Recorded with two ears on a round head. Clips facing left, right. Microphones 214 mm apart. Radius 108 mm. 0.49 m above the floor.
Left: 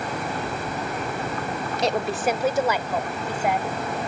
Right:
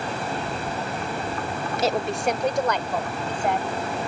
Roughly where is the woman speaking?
Centre.